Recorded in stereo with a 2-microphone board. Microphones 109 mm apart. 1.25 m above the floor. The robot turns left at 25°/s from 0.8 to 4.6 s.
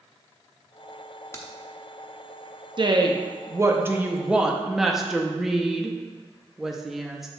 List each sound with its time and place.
1.3 s a crack: 25° left (ahead or behind), 0.8 m
2.8 s a woman speaking: 130° right, 0.6 m; by 7.3 s straight behind, 0.6 m